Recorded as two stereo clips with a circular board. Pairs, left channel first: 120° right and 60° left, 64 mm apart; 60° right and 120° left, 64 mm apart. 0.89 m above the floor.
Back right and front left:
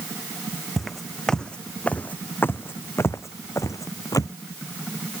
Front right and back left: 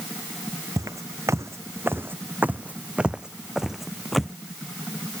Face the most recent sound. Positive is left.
turn(degrees=-145)